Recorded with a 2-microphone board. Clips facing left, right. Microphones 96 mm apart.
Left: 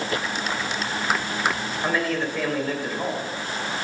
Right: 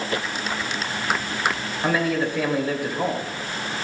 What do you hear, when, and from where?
1.8 s a man speaking: 10° right (ahead or behind), 3 m